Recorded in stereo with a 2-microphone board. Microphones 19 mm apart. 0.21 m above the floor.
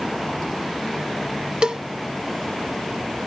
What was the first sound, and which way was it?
A cowbell, 40° right (ahead or behind).